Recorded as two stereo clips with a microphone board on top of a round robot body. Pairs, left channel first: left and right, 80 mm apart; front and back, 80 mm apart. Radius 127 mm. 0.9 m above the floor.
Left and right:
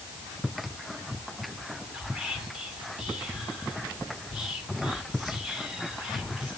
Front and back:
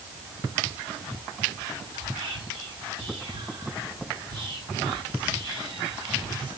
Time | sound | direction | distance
1.9 | whispering | 175° right | 2.5 m